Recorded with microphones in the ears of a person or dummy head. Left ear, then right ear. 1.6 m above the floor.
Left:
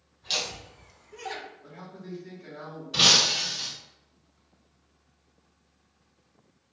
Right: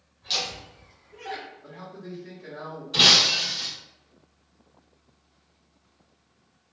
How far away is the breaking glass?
About 1.6 m.